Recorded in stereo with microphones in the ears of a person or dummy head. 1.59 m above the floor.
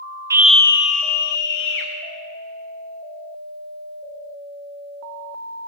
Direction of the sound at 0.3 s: 15° right (ahead or behind).